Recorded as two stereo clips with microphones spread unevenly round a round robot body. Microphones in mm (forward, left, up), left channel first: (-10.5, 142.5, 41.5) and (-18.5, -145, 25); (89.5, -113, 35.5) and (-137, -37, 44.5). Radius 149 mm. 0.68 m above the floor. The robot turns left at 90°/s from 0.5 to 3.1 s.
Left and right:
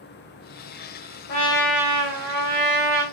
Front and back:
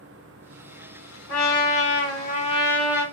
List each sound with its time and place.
1.3 s a trumpet: 30° left, 1.2 m; by 3.0 s 125° right, 1.2 m